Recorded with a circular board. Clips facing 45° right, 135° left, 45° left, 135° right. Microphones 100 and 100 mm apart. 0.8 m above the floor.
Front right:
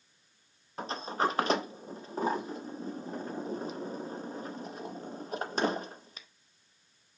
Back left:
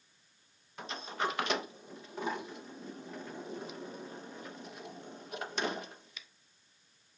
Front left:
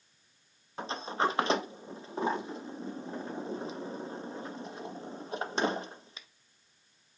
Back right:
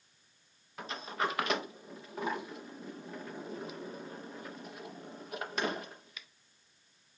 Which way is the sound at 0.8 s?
5° right.